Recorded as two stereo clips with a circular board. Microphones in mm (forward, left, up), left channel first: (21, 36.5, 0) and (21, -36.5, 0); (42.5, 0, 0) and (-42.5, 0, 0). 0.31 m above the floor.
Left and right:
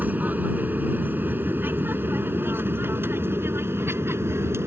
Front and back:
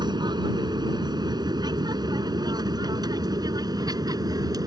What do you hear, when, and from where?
0.0 s an aircraft: 155° right; by 4.7 s 140° right